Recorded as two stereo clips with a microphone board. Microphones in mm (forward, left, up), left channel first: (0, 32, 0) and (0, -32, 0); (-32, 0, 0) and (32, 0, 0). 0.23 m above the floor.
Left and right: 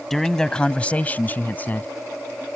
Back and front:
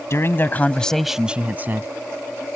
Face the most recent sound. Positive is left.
turn(degrees=40)